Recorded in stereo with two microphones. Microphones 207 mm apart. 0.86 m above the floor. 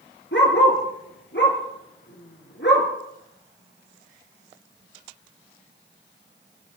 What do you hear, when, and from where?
0.3 s a dog barking: 65° left (ahead or behind), 3 m